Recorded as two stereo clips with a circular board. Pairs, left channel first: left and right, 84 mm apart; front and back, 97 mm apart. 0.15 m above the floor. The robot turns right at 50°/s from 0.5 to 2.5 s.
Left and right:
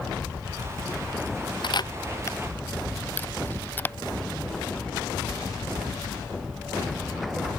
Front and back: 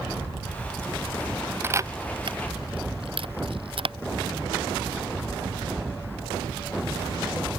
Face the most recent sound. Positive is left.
turn(degrees=155)